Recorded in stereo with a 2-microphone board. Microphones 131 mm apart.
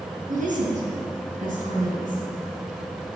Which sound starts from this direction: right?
A woman speaking, at 0.3 s.